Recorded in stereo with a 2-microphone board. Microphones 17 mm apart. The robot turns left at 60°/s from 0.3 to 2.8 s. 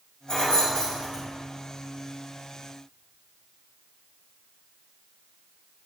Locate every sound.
0.3 s keys jangling: 55° left (ahead or behind), 1.7 m; by 1.2 s 25° left (ahead or behind), 1.7 m